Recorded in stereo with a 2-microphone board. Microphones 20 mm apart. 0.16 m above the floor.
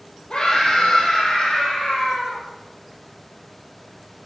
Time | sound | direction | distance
0.3 | a scream | 40° left (ahead or behind) | 4.5 m